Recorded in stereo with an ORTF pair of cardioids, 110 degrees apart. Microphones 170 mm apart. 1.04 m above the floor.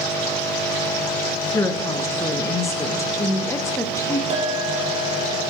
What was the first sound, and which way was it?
A woman speaking, 20° left.